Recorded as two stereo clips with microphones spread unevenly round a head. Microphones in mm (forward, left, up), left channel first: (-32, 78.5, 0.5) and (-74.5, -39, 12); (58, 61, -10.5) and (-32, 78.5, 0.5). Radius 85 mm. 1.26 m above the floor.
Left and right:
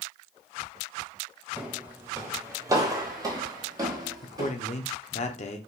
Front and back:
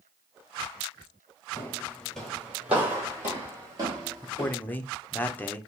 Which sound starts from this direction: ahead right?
Footsteps, at 1.6 s.